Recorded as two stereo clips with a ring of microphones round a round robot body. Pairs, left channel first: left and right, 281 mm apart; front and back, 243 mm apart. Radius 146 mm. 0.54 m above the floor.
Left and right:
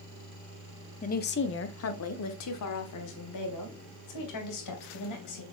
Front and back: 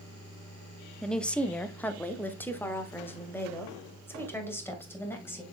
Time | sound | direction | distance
1.0 | a woman speaking | 85° left | 0.7 m